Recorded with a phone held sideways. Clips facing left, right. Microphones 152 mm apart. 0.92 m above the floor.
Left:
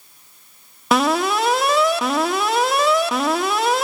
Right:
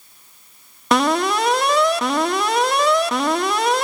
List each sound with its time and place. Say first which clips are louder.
0.9 s an alarm: even; centre (ahead or behind), 1.5 m